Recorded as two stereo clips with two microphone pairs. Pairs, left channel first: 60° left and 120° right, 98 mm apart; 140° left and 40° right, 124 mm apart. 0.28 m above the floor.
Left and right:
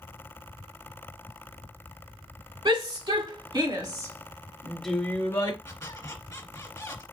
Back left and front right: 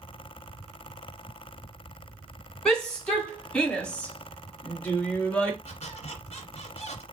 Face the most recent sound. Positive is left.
turn(degrees=120)